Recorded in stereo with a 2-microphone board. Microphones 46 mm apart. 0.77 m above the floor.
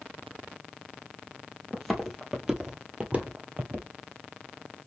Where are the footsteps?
Centre (ahead or behind), 1.4 m; by 3.9 s 50° right (ahead or behind), 1.3 m.